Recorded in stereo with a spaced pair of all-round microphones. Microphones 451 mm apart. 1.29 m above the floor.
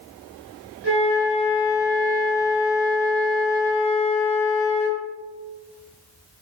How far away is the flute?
About 7 m.